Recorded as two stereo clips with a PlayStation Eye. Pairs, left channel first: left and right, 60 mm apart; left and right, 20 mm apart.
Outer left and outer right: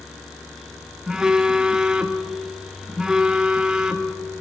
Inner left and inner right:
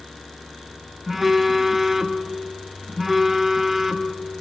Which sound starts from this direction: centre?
A phone buzzing, at 1.1 s.